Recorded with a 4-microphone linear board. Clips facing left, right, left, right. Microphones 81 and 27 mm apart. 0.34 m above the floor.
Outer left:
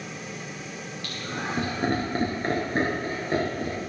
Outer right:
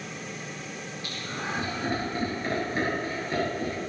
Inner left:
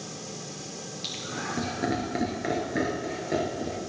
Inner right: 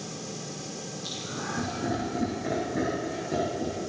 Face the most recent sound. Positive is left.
turn(degrees=25)  # may be behind; listen again after turning